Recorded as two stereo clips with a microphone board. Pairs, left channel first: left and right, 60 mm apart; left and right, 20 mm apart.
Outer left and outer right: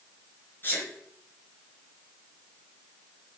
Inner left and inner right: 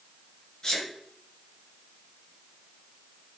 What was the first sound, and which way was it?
A sneeze, 35° left (ahead or behind).